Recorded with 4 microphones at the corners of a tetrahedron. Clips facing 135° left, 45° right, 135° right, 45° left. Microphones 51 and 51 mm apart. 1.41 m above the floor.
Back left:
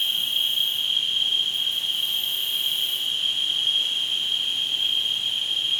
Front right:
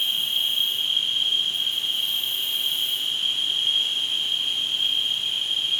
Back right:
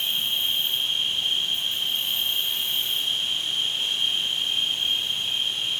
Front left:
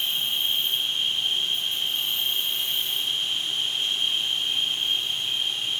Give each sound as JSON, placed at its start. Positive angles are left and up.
{"t": 0.0, "sound": "an insect", "azimuth_deg": -135, "distance_m": 2.0}